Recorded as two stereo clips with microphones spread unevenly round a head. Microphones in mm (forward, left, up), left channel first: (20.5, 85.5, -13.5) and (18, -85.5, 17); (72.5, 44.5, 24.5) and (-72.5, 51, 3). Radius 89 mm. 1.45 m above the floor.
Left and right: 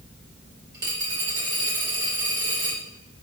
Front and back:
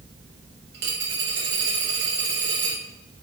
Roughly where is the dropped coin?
Behind right.